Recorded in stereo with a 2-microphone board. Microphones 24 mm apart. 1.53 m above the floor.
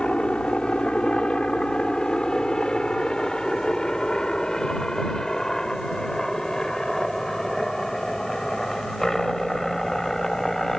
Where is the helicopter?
45° left (ahead or behind); by 10.8 s 15° left (ahead or behind).